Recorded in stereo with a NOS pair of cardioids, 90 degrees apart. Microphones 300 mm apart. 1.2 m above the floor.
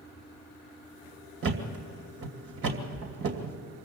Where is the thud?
50° right, 2.5 m.